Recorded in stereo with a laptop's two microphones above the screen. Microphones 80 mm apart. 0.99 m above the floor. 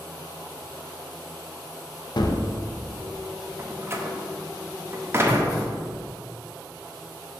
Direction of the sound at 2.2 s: 55° left (ahead or behind).